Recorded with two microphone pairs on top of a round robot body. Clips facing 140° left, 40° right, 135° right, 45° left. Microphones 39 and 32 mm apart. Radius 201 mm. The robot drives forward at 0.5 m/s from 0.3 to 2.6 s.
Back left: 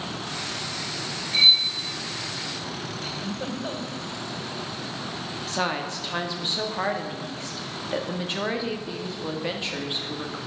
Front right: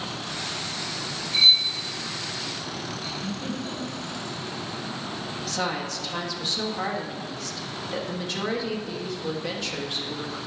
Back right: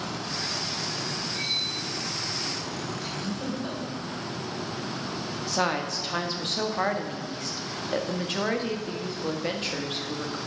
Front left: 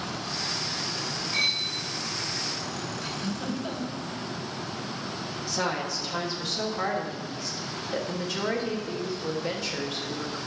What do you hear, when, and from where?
1.3 s cutlery clinking: 70° left, 2 m; by 1.7 s 75° left, 2 m
3.0 s a giggle: 135° left, 2.5 m
5.5 s a woman speaking: 170° right, 1.8 m